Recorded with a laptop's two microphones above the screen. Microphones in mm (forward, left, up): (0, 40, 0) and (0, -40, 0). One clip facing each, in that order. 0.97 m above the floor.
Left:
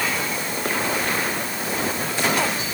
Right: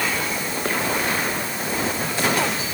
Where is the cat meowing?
No cat meowing in this recording.